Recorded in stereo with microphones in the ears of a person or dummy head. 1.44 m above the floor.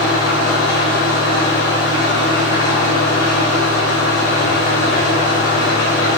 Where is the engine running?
50° left (ahead or behind), 9 m.